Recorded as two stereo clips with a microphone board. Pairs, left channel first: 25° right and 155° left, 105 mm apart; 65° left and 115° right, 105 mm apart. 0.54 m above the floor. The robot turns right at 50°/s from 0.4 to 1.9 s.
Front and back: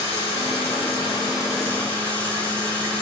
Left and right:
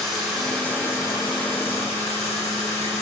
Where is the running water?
20° right, 3.5 m; by 3.0 s 55° left, 3.5 m.